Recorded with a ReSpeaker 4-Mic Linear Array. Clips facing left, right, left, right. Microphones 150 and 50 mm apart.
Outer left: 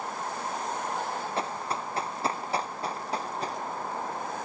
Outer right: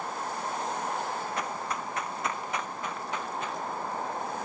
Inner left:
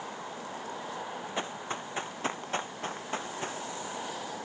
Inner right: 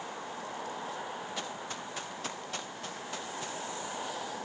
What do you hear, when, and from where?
1.4 s running footsteps: 30° left (ahead or behind); by 3.6 s 35° left (ahead or behind)